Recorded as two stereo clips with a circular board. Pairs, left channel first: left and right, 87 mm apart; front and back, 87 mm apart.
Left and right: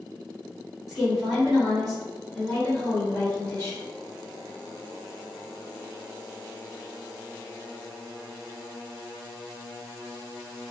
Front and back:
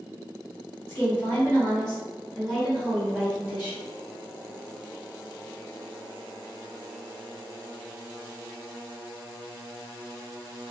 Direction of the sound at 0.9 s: 10° right.